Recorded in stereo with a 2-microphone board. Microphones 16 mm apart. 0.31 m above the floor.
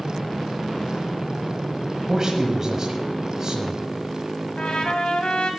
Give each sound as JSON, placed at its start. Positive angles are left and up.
{"t": 2.1, "sound": "a man speaking", "side_deg": -25, "distance_m": 1.4}
{"t": 4.6, "sound": "a trumpet", "side_deg": 55, "distance_m": 1.4}